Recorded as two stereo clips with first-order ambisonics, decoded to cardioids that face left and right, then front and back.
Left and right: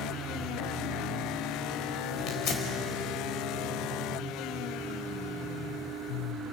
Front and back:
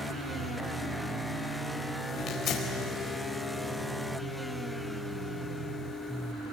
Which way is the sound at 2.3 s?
50° left.